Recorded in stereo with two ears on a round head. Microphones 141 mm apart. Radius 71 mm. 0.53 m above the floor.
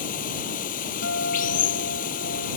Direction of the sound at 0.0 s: 55° left (ahead or behind).